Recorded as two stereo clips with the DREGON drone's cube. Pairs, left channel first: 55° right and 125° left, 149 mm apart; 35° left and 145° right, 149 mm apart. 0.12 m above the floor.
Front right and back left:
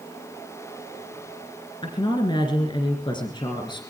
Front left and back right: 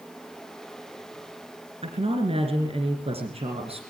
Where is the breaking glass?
No breaking glass in this recording.